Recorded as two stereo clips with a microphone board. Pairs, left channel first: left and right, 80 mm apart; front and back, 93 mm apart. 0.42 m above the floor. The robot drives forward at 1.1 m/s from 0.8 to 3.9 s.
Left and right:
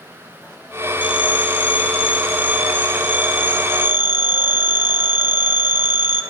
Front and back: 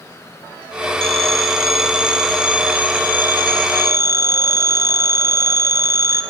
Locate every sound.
1.0 s a phone ringing: 85° left, 4.5 m; by 6.2 s 125° left, 5 m